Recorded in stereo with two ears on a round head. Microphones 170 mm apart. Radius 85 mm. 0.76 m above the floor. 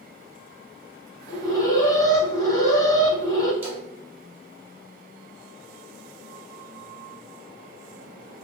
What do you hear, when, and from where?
1.3 s an alarm: 20° left (ahead or behind), 0.8 m
3.6 s a splash: 10° right (ahead or behind), 1.4 m